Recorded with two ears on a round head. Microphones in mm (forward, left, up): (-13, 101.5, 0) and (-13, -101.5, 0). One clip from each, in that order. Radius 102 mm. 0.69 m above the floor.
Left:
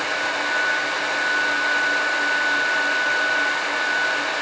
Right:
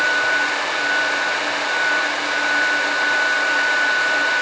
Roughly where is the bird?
I don't hear a bird.